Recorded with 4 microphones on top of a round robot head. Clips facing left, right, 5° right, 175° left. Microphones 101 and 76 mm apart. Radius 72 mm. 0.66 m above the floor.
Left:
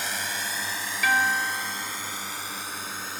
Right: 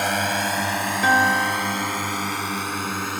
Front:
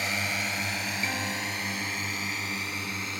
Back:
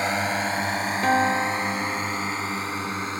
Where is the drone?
120° right.